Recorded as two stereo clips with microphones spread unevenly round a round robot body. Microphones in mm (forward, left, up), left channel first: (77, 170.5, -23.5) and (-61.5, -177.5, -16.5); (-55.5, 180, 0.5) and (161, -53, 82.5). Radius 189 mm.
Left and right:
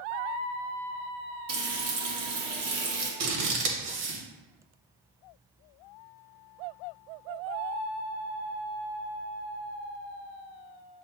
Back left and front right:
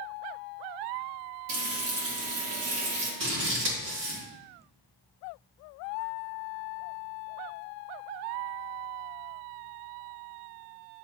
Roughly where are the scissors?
Right.